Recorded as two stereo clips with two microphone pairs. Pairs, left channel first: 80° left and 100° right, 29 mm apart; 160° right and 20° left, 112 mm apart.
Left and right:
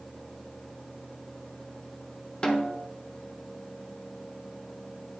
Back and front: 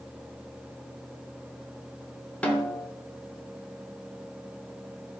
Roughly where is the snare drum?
Behind left.